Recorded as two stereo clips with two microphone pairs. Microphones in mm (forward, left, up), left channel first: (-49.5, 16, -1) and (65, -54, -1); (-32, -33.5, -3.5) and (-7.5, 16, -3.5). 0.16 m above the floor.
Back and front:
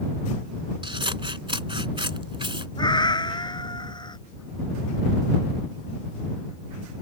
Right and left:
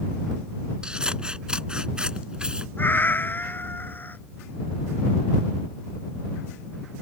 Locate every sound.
0.8 s scissors: 5° right
2.8 s a cat meowing: 160° right